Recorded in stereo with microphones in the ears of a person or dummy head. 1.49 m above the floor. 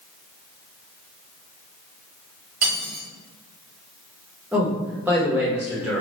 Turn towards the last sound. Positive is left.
turn(degrees=0)  # may be behind; listen again after turning